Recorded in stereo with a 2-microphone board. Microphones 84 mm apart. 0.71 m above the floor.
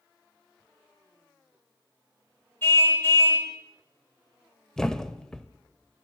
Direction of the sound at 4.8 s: 10° left (ahead or behind).